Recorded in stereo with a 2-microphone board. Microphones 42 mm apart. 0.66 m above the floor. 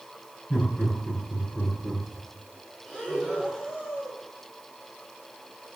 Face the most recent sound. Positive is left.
turn(degrees=-15)  # may be behind; listen again after turning